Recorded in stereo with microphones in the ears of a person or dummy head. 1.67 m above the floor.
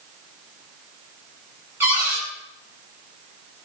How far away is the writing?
No writing in this recording.